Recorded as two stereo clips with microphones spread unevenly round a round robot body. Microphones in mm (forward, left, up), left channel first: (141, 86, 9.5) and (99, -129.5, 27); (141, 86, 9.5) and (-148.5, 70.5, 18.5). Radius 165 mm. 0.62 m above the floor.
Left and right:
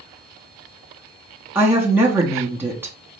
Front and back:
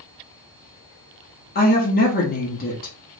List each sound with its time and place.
1.6 s a woman speaking: 20° right, 1.2 m